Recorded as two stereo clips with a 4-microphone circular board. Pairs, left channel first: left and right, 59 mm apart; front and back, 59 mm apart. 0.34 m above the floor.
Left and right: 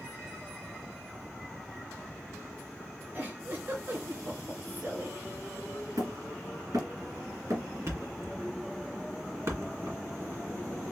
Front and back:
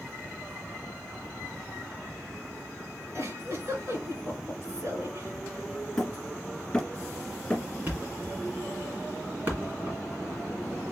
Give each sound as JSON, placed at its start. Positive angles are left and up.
{"t": 3.1, "sound": "a giggle", "azimuth_deg": -140, "distance_m": 2.5}
{"t": 6.0, "sound": "hammering", "azimuth_deg": -75, "distance_m": 1.9}
{"t": 7.9, "sound": "a thud", "azimuth_deg": -125, "distance_m": 1.9}